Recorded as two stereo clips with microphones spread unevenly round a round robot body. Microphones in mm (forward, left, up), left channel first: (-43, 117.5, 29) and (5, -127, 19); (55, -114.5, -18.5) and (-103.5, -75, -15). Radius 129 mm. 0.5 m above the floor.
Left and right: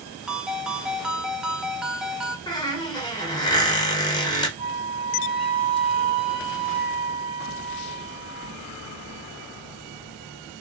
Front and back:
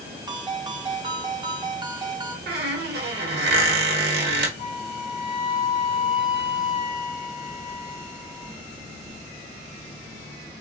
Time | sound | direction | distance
0.3 | a ringtone | 160° right | 0.8 m
2.5 | a squeak | 175° left | 1.0 m
4.6 | a flute | 95° left | 2.5 m